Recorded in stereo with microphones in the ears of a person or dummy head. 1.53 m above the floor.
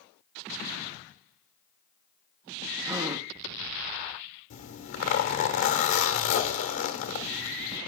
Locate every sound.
2.8 s a gasp: 5° right (ahead or behind), 0.5 m
4.5 s a zipper: 70° left (ahead or behind), 1.2 m